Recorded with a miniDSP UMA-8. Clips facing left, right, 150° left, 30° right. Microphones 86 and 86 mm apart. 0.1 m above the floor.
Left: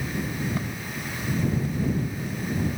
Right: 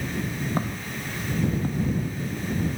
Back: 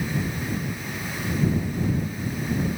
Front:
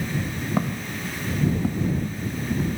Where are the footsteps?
35° right; by 1.9 s 40° right.